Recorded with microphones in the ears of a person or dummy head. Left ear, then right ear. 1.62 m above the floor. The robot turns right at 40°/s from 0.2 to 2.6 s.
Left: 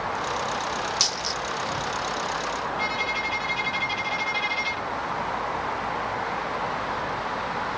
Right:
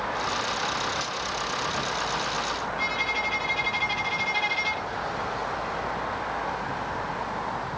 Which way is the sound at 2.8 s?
Centre (ahead or behind).